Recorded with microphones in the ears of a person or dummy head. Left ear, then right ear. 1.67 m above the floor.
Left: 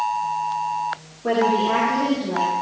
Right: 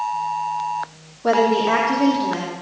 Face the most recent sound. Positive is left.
turn(degrees=-75)  # may be behind; listen again after turning